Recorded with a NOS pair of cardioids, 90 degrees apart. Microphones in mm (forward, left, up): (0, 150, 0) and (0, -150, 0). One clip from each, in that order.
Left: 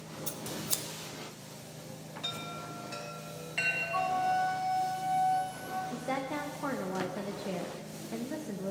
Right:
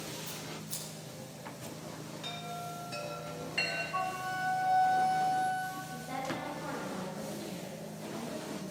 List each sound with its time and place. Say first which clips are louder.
0.3 s scissors: left 5 dB; 65° left, 0.9 m
2.2 s a chime: left 2 dB; 5° left, 2.5 m
3.9 s a flute: left 5 dB; 10° left, 1.4 m
5.9 s a woman speaking: left 3 dB; 70° left, 0.9 m